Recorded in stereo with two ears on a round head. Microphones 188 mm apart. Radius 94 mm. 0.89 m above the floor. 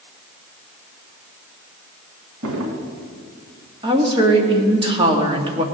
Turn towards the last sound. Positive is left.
turn(degrees=-25)  # may be behind; listen again after turning